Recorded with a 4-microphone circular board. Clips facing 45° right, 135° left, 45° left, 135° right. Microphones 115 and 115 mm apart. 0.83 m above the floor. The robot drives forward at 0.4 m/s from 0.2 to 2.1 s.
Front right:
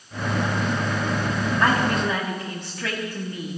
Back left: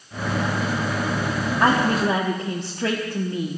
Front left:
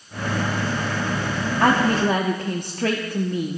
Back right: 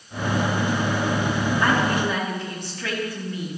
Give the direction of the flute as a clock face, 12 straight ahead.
I don't hear a flute.